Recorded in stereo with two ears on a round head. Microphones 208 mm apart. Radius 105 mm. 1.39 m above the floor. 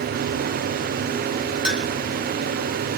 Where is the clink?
5° right (ahead or behind), 3 m.